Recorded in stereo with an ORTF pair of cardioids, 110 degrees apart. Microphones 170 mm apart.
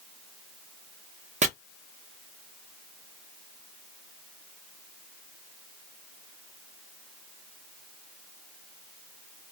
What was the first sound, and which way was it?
Chopping, 45° right.